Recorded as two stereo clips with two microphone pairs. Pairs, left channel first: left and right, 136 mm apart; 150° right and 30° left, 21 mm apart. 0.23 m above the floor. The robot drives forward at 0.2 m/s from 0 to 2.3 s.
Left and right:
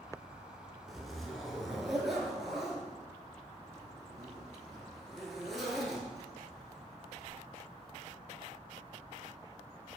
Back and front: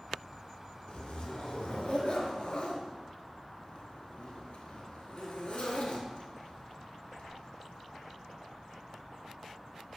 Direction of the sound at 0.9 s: Straight behind.